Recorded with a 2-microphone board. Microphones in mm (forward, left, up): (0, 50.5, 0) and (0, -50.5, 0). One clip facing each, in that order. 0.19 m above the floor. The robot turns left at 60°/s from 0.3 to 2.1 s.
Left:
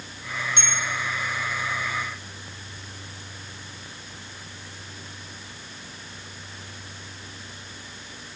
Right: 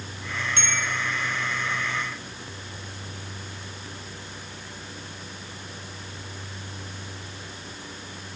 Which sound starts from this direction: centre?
A bell, at 0.6 s.